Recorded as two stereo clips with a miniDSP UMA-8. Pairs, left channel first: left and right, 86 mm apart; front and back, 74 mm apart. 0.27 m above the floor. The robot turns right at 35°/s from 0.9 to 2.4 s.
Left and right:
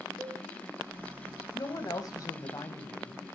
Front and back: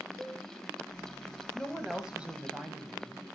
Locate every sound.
0.2 s a cowbell: 135° right, 4 m
1.5 s a woman speaking: 85° left, 1.2 m; by 3.2 s 115° left, 1.2 m